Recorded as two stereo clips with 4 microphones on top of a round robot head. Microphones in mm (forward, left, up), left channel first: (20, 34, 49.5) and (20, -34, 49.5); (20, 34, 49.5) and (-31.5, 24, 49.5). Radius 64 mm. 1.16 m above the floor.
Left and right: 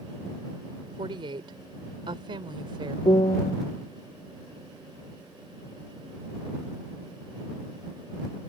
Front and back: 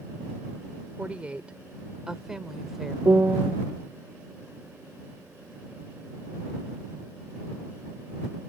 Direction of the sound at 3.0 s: 130° left.